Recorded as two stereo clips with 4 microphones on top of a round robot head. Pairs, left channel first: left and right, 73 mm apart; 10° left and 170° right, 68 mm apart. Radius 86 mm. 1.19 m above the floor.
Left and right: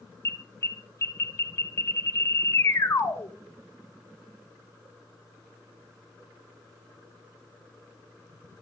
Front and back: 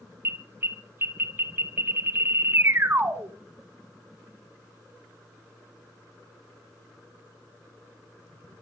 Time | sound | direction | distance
0.2 | an alarm | 135° left | 2 m